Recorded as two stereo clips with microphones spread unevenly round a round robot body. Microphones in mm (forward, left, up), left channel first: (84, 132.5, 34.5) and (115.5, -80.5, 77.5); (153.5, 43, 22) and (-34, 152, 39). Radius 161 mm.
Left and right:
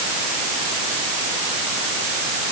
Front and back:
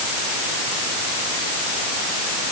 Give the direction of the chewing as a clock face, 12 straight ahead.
No chewing in this recording.